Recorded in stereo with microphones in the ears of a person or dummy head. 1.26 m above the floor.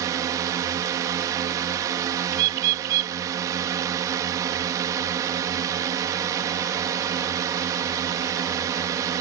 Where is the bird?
50° right (ahead or behind).